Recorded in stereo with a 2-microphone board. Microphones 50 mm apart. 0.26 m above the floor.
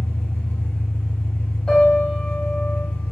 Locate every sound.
0.0 s an engine running: 40° left (ahead or behind), 1.2 m
1.7 s a piano: 15° left (ahead or behind), 1.2 m